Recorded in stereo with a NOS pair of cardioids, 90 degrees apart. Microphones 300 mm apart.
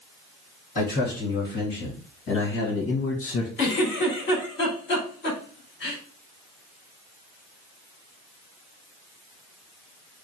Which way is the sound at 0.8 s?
30° left.